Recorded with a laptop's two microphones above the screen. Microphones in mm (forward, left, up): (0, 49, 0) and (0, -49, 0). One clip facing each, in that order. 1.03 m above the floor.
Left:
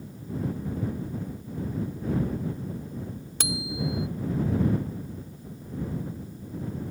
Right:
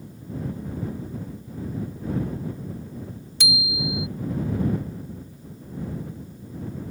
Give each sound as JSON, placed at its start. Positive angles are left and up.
{"t": 3.4, "sound": "a bicycle bell", "side_deg": 50}